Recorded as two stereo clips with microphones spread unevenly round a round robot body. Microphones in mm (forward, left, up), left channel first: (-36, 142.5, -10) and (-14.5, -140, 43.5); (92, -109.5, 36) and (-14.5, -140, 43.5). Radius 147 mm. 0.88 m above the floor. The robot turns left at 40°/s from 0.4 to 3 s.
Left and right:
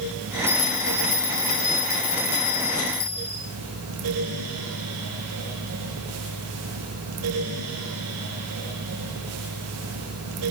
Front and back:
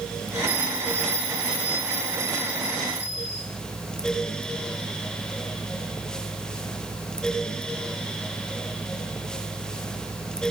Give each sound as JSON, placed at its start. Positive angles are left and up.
{"t": 0.5, "sound": "a bell", "azimuth_deg": 165, "distance_m": 5.5}